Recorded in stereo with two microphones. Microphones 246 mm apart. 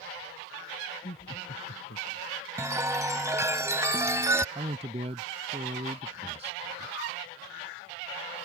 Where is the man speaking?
25° right (ahead or behind).